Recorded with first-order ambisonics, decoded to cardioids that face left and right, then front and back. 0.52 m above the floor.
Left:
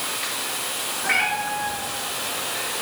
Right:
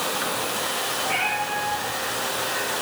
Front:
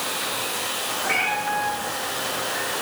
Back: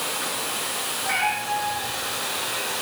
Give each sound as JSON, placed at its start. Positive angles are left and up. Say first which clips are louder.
{"t": 1.0, "sound": "a cat meowing", "louder": "left 5 dB, front 1 dB", "azimuth_deg": 95, "distance_m": 4.5}